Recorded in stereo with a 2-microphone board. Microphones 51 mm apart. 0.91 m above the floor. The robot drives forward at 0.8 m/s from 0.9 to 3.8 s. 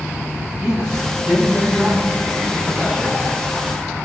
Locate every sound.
0.6 s a man speaking: 20° right (ahead or behind), 8 m; by 3.2 s 30° right (ahead or behind), 6.5 m